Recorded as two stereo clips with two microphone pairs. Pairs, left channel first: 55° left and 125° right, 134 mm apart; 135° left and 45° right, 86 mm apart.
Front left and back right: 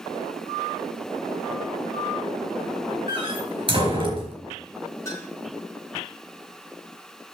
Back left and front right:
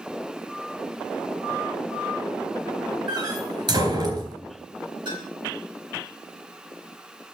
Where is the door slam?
75° right, 3.5 m.